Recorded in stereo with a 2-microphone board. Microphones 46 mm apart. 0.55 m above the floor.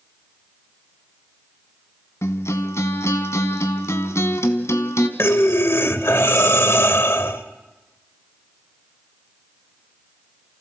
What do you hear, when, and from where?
2.2 s a guitar: 75° left (ahead or behind), 1.5 m
5.2 s breathing: 65° left (ahead or behind), 1.1 m